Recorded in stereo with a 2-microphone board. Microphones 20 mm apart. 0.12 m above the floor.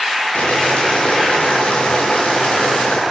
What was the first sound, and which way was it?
Boiling, 75° left (ahead or behind).